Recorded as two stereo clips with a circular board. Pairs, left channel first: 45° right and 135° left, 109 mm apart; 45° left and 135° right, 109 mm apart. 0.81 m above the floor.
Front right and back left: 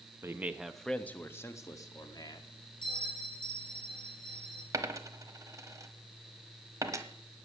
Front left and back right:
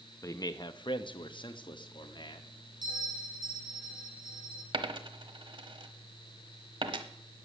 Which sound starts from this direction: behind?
A dropped coin, at 4.7 s.